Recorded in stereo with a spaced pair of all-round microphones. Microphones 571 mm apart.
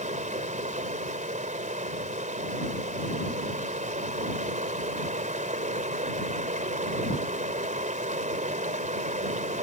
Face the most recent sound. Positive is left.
turn(degrees=-15)  # may be behind; listen again after turning